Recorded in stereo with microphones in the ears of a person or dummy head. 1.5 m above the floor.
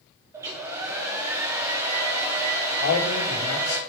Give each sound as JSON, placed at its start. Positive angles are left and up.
{"t": 0.3, "sound": "a hair dryer", "side_deg": -20, "distance_m": 0.8}
{"t": 2.8, "sound": "a man speaking", "side_deg": 80, "distance_m": 2.0}